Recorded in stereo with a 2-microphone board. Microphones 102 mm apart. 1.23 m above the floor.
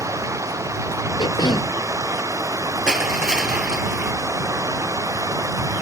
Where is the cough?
50° left (ahead or behind).